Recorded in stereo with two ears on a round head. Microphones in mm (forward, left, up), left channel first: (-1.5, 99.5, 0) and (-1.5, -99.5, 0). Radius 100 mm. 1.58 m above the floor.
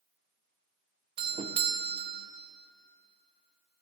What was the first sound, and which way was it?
A doorbell, 25° right (ahead or behind).